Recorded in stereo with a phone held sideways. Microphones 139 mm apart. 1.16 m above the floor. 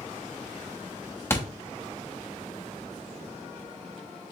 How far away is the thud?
About 0.6 m.